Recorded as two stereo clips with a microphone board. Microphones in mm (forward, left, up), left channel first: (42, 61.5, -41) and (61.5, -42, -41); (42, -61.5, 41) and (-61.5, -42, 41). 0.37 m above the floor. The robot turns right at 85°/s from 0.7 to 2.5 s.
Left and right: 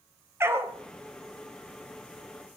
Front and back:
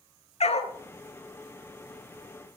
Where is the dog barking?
10° right, 1.6 m.